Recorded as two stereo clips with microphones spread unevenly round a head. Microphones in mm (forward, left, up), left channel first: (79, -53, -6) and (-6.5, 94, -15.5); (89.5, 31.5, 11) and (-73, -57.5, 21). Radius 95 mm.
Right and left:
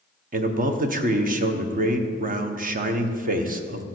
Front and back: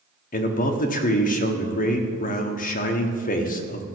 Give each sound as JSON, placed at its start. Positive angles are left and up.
{"t": 0.3, "sound": "a man speaking", "azimuth_deg": 80, "distance_m": 1.2}